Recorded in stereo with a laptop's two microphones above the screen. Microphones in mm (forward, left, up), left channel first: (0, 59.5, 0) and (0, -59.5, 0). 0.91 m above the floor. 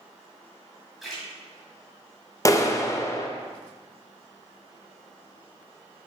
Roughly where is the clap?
Left.